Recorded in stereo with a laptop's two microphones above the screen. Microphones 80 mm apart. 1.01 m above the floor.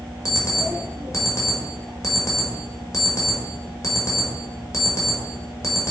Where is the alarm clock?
40° left (ahead or behind), 1.6 m.